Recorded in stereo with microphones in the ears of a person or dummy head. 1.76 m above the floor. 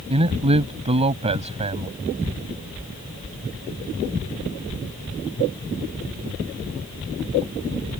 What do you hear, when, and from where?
0.1 s a man speaking: 30° right (ahead or behind)